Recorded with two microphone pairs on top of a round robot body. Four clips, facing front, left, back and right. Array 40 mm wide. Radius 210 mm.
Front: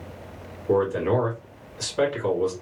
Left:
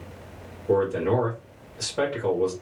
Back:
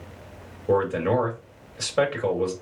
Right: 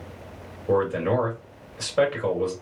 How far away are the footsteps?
No footsteps in this recording.